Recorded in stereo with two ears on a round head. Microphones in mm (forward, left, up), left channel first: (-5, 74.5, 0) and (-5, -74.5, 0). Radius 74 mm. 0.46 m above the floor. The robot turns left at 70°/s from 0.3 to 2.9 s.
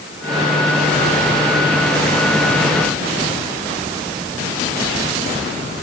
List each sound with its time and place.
Only background noise.